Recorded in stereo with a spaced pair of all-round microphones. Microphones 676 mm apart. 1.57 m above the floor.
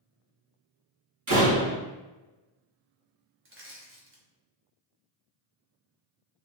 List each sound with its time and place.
1.3 s a door slam: 45° right (ahead or behind), 1.2 m
3.5 s crushing: 20° right (ahead or behind), 0.7 m